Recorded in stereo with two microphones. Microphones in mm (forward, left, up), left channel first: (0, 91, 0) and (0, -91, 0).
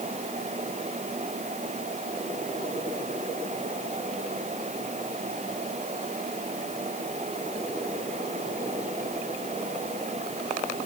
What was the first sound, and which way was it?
Only background noise.